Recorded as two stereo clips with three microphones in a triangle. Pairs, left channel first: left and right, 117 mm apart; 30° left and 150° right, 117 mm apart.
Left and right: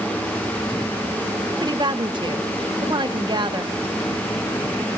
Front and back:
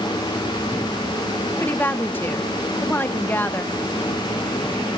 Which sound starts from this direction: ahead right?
A woman speaking, at 1.6 s.